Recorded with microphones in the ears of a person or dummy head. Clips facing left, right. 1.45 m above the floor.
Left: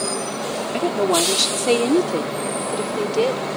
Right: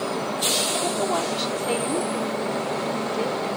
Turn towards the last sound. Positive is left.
turn(degrees=80)